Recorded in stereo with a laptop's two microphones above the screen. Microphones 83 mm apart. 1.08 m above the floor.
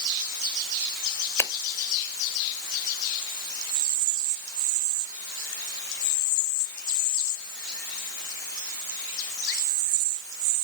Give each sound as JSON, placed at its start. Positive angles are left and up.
{"t": 1.4, "sound": "a finger snap", "side_deg": 30, "distance_m": 0.7}